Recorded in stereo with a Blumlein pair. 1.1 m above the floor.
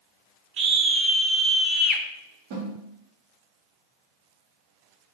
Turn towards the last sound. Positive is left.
turn(degrees=-50)